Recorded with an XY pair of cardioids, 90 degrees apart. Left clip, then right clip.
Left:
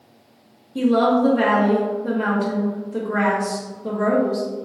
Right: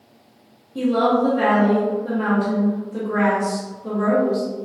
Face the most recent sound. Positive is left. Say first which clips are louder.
# left 1 dB
turn(degrees=30)